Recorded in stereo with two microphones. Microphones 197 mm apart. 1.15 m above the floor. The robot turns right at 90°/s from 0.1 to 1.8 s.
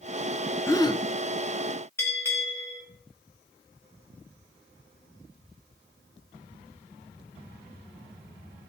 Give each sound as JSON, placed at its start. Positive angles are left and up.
{"t": 0.7, "sound": "a gasp", "azimuth_deg": 25, "distance_m": 0.7}
{"t": 2.0, "sound": "a bell", "side_deg": 10, "distance_m": 5.0}